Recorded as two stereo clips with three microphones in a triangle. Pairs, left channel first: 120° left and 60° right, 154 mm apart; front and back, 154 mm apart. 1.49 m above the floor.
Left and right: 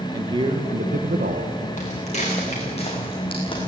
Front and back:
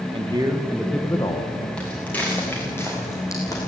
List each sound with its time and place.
0.1 s a man speaking: 125° right, 2.0 m; by 1.7 s 50° right, 2.0 m
1.8 s footsteps: 85° left, 6.5 m; by 3.7 s 65° left, 5.5 m